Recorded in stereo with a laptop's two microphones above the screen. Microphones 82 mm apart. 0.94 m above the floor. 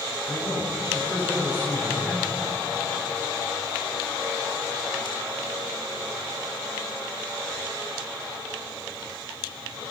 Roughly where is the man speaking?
Left.